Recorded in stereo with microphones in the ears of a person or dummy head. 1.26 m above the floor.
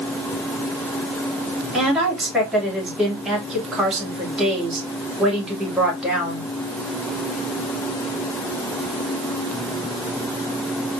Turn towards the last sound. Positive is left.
turn(degrees=0)  # may be behind; listen again after turning